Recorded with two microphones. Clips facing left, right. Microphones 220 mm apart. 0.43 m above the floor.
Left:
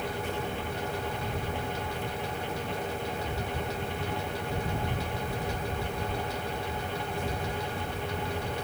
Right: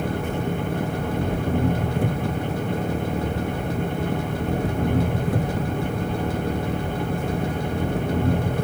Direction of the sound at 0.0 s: 80° right.